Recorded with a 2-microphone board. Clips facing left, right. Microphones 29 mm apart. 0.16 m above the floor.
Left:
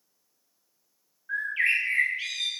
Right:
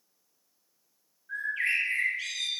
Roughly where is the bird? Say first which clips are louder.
Left 4 dB; left.